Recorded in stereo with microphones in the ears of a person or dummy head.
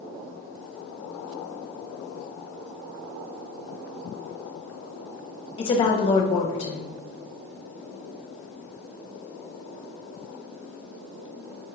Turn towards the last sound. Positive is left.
turn(degrees=25)  # may be behind; listen again after turning